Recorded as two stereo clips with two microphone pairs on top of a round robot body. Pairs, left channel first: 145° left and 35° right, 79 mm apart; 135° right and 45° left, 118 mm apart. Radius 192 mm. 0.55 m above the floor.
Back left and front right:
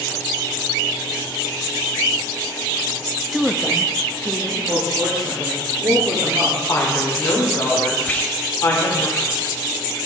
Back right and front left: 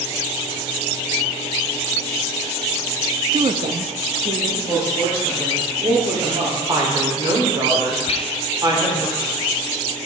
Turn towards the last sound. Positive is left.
turn(degrees=-150)